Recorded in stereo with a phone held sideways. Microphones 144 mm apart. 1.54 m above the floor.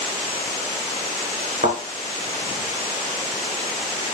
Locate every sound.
1.6 s a thud: 60° right (ahead or behind), 4 m